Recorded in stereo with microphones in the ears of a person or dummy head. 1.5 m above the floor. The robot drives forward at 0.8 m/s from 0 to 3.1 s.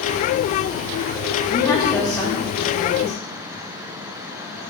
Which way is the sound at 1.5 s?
25° left (ahead or behind).